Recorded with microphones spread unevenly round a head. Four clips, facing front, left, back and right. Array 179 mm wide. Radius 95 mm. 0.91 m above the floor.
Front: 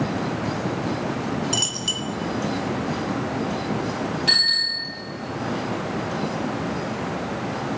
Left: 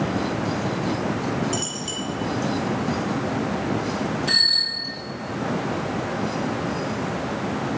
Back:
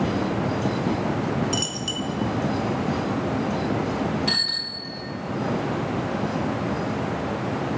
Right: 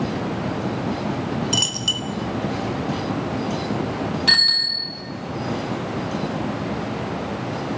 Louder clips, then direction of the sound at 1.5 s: Right 1 dB, back 1 dB; 70° right.